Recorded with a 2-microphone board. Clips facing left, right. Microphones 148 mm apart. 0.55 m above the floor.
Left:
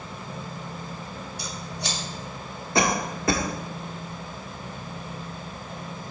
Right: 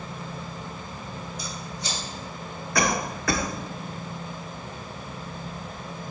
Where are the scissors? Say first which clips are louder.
Left 1 dB; 70° left (ahead or behind), 2 m.